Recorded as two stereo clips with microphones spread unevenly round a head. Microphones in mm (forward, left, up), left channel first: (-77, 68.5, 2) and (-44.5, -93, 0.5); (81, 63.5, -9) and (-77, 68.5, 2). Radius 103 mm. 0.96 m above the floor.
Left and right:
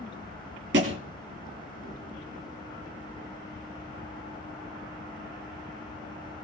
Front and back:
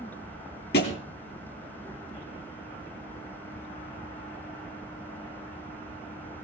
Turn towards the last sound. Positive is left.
turn(degrees=-45)